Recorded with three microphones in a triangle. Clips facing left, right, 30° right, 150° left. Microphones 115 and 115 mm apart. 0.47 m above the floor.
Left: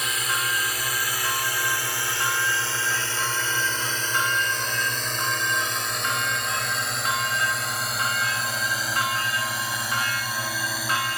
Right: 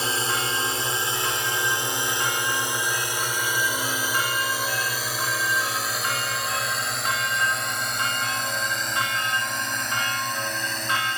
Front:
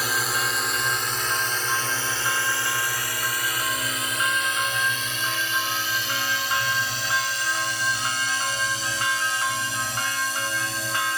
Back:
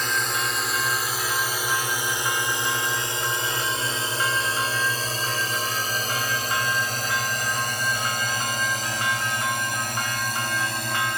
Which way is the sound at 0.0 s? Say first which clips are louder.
Right 2 dB, even; 110° right.